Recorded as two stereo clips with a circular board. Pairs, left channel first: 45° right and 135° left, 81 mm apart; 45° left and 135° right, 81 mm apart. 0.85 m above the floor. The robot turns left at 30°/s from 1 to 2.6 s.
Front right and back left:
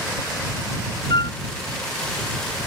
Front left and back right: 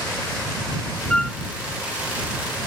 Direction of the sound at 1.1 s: 30° right.